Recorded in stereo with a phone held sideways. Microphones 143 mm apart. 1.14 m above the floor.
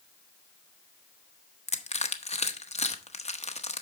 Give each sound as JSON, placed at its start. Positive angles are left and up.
{"t": 1.7, "sound": "crushing", "side_deg": 50, "distance_m": 0.8}